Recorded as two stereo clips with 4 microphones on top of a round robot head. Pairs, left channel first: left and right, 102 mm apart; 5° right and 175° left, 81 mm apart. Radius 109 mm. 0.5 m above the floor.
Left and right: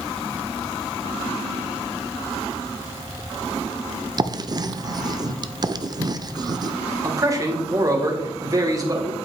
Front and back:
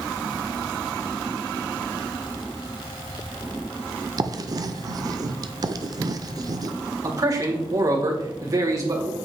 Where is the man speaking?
145° right, 2 m.